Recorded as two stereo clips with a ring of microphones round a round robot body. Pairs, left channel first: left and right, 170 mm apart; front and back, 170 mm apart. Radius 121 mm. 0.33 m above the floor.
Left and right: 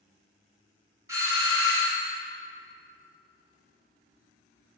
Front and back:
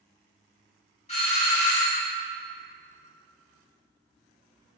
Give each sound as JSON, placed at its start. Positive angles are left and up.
{"t": 1.1, "sound": "a doorbell", "azimuth_deg": -30, "distance_m": 1.6}